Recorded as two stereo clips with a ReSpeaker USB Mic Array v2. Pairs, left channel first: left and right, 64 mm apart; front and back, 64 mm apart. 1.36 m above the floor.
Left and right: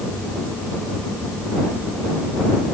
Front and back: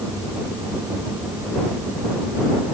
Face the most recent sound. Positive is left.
No sound to turn to.